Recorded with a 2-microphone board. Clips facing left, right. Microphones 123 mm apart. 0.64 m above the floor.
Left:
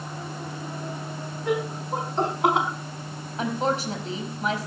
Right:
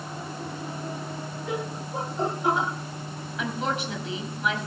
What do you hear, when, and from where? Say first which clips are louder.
1.5 s laughter: left 6 dB; 75° left (ahead or behind), 6 m; by 2.7 s 70° left (ahead or behind), 5 m
3.4 s a woman speaking: left 4 dB; 35° left (ahead or behind), 4.5 m